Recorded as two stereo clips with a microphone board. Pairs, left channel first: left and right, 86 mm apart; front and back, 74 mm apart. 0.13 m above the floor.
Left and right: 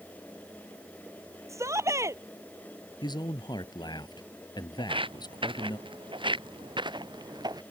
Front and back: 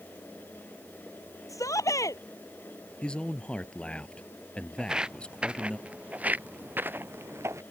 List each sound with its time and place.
1.5 s a shout: 40° right
3.0 s a man speaking: 75° left
4.8 s footsteps: 100° right; by 7.6 s 130° right